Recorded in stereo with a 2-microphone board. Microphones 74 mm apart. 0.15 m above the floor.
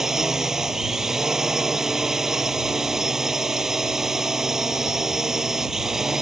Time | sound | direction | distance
0.0 | a drone | 5° right (ahead or behind) | ?